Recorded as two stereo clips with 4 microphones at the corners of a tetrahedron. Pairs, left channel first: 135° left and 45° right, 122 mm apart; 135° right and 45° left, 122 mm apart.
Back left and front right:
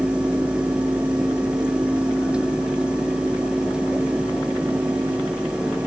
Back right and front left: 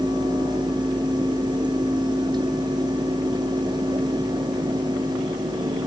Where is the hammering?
I don't hear hammering.